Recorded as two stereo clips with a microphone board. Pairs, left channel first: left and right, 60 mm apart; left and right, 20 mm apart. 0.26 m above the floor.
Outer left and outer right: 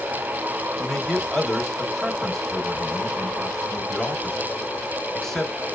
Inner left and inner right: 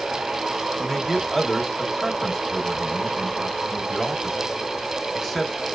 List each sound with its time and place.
0.8 s a man speaking: 5° left (ahead or behind), 1.0 m